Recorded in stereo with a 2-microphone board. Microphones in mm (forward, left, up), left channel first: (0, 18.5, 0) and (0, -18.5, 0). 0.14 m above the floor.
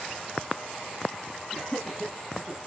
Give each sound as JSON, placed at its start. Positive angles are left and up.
{"t": 1.5, "sound": "laughter", "side_deg": 30, "distance_m": 1.4}